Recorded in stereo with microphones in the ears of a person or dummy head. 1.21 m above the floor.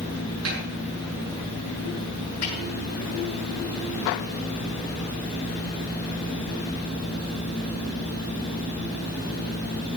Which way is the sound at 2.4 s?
70° left (ahead or behind).